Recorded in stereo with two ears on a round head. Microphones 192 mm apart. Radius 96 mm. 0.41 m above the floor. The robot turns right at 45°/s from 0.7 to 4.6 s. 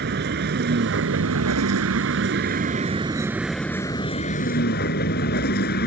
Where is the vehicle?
125° right; by 5.9 s 50° left.